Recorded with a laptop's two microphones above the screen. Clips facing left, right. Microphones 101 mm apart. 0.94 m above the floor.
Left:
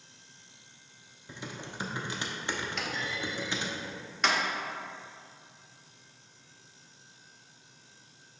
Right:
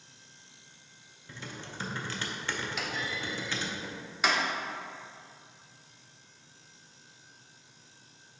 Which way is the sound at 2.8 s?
5° right (ahead or behind).